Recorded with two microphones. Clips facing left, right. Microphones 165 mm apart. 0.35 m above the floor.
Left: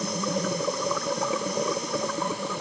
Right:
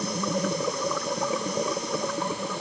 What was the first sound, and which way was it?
Only background noise.